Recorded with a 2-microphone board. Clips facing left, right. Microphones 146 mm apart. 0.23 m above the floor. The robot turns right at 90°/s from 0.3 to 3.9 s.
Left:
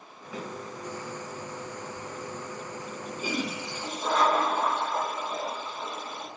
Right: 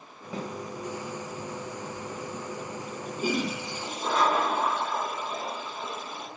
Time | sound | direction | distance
0.3 | a snare drum | 30° right (ahead or behind) | 0.9 m
3.2 | a toilet flushing | 70° right | 0.9 m